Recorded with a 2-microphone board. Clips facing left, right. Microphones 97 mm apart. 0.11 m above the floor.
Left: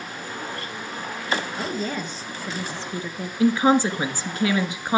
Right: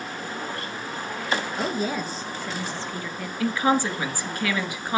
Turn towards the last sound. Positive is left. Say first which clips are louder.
# left 4 dB
turn(degrees=25)  # may be behind; listen again after turning